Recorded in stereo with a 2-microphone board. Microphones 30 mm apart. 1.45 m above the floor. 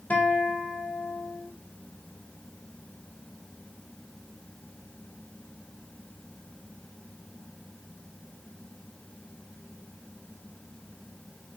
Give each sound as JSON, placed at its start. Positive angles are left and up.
{"t": 0.1, "sound": "a guitar", "side_deg": 55, "distance_m": 1.1}